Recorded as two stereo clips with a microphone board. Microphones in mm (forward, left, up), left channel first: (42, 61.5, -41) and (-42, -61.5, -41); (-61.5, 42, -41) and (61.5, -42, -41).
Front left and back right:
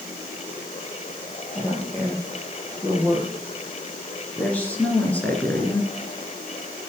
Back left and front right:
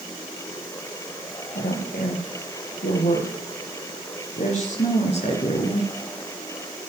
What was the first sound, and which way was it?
A woman speaking, 135° left.